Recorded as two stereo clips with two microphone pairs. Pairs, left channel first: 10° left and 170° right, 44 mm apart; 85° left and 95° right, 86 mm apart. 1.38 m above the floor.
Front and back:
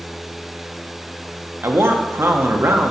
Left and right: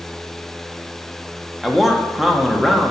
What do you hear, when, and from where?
1.6 s a man speaking: 175° left, 1.0 m